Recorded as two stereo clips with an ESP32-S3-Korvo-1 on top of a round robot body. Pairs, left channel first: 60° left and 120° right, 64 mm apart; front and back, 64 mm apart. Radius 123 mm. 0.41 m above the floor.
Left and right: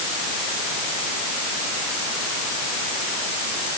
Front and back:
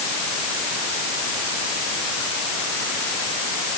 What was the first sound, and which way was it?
Only background noise.